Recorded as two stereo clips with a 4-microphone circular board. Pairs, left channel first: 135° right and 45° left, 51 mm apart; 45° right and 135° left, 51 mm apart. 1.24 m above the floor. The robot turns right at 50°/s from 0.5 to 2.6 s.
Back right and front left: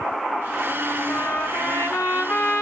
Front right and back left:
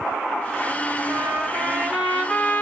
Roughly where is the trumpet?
Behind.